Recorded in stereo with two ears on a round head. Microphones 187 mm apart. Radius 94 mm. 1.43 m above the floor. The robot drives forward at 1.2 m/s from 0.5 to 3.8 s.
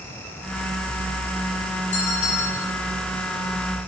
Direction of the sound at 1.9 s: 40° left (ahead or behind).